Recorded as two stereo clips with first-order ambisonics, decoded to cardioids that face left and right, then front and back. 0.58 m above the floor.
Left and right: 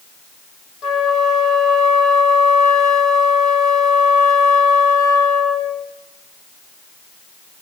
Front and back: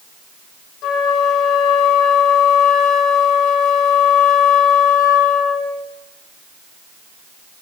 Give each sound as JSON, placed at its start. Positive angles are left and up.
{"t": 0.8, "sound": "a flute", "azimuth_deg": 40, "distance_m": 2.0}